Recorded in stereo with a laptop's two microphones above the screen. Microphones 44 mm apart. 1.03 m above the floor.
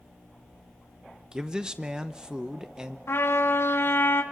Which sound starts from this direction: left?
A trumpet, at 3.1 s.